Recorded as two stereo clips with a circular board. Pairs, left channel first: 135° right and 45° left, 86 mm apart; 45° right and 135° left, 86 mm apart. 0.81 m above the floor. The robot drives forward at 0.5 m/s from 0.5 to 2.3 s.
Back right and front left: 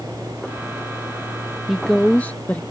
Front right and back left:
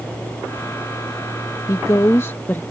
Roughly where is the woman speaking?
Ahead right.